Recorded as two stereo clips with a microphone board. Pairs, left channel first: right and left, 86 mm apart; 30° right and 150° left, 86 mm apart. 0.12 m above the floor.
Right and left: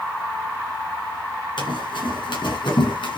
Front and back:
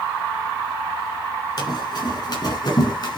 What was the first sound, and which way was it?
Running footsteps, 60° right.